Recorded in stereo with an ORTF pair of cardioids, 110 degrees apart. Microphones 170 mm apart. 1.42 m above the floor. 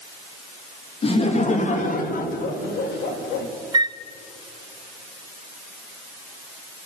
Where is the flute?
25° right, 0.7 m.